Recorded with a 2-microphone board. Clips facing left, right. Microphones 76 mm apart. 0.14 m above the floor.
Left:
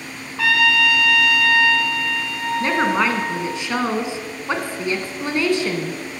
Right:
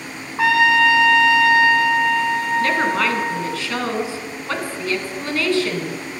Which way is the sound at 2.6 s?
20° left (ahead or behind).